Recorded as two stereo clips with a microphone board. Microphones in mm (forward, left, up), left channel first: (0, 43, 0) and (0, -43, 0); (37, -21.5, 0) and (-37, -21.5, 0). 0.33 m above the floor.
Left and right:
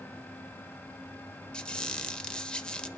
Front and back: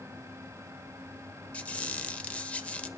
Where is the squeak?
35° left, 0.8 m.